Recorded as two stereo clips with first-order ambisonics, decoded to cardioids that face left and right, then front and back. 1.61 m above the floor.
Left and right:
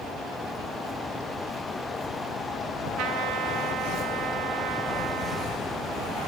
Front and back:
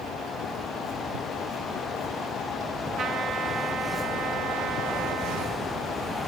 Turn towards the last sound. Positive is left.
turn(degrees=-120)